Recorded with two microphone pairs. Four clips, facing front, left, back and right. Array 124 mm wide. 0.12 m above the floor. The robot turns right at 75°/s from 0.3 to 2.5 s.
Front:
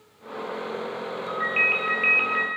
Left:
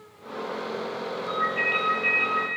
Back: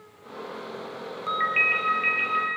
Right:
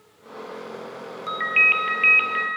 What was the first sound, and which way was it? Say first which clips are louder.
A ringtone: right 3 dB, back 2 dB; 135° right.